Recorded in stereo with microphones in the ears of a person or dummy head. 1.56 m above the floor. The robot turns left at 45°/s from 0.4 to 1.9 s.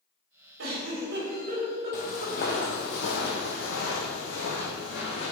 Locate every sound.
0.6 s a giggle: 80° right, 3.5 m; by 2.7 s 30° right (ahead or behind), 3.5 m
1.9 s footsteps: 45° left (ahead or behind), 2 m; by 5.3 s 60° left (ahead or behind), 4 m